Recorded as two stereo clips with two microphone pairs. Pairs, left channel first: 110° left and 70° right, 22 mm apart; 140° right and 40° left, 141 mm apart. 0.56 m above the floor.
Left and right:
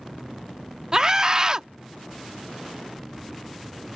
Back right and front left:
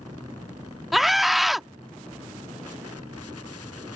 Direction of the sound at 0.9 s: 55° right.